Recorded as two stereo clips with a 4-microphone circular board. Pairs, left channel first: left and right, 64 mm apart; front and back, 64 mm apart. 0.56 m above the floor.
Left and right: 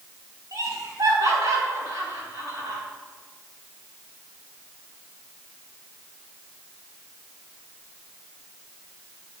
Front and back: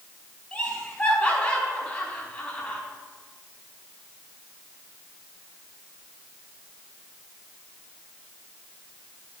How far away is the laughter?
About 4 m.